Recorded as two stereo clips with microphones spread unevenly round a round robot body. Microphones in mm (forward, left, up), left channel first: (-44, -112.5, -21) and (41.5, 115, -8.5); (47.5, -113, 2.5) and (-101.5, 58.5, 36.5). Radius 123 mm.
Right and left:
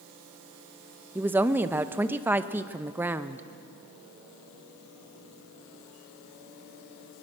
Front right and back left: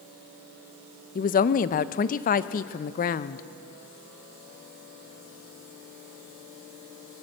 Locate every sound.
1.1 s a woman speaking: 15° right, 0.6 m